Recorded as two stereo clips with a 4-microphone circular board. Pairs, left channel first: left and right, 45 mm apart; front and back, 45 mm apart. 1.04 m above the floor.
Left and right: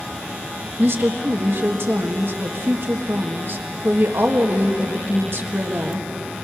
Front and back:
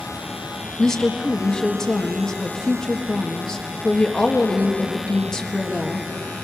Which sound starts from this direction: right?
A woman speaking, at 0.8 s.